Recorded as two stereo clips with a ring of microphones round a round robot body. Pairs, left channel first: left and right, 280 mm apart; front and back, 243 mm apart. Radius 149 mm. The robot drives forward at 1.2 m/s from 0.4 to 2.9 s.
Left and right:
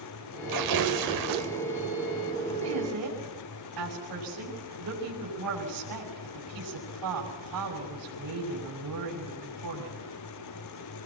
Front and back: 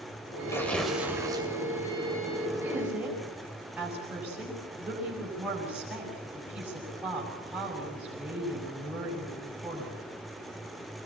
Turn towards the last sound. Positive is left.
turn(degrees=-95)